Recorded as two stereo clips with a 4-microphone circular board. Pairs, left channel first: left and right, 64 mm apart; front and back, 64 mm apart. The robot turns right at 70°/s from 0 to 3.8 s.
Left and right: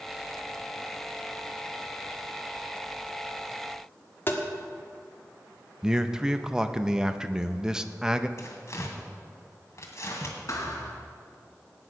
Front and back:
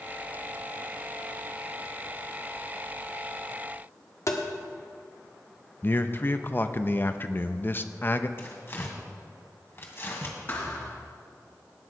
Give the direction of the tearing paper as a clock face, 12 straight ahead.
10 o'clock.